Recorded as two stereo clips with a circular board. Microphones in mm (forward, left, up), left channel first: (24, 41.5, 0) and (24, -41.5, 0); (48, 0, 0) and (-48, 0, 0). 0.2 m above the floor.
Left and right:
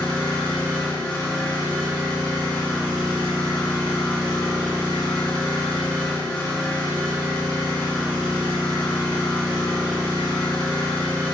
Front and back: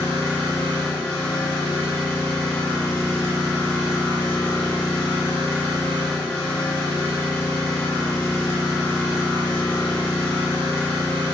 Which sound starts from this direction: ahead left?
An engine running, at 0.0 s.